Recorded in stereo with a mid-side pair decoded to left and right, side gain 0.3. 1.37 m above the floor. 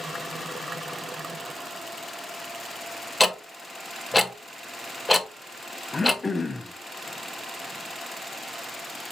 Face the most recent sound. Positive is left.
turn(degrees=35)